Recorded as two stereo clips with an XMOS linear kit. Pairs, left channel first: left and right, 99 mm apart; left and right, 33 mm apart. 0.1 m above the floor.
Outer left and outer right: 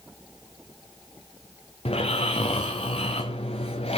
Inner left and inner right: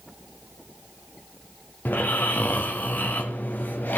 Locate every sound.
1.9 s snoring: 85° left, 2 m